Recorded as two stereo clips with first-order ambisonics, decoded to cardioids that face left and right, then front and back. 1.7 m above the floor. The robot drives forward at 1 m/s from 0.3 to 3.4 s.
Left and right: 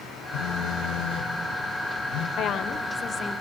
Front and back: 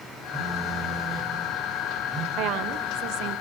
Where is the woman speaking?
140° left, 1.2 m; by 3.4 s 160° left, 2 m.